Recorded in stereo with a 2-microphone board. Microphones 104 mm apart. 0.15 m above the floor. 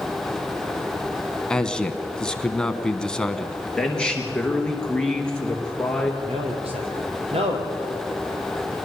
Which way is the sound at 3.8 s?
10° left (ahead or behind).